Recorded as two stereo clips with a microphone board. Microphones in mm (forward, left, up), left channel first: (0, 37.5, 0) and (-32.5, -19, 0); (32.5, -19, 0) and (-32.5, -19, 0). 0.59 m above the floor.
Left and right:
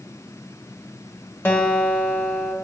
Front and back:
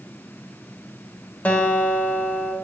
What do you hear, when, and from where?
1.4 s a guitar: 30° left, 1.2 m